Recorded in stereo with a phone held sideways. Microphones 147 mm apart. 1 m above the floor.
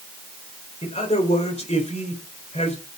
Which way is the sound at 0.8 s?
50° left (ahead or behind).